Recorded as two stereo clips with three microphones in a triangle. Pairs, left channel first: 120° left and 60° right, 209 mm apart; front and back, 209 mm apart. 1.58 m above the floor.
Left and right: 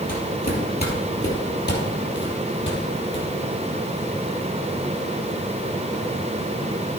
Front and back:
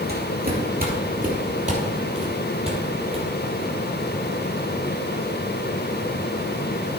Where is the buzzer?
I don't hear a buzzer.